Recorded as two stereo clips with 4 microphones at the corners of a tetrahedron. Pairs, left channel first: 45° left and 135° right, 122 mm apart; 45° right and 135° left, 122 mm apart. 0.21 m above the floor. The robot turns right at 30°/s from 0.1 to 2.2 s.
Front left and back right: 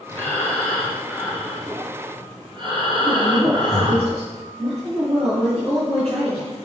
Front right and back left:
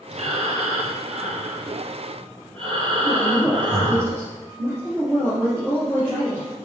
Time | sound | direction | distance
0.1 | breathing | 110° left | 1.6 m
3.0 | a woman speaking | 160° right | 3 m